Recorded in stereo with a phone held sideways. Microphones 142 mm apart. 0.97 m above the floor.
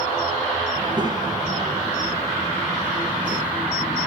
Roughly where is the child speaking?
Right.